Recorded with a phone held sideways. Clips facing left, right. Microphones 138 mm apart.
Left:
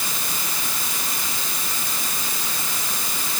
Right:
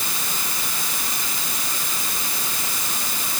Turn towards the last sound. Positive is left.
No sound to turn to.